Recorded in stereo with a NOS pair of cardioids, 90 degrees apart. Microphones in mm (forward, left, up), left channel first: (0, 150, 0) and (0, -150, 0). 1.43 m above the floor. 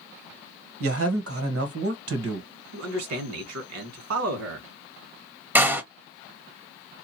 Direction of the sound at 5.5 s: 5° right.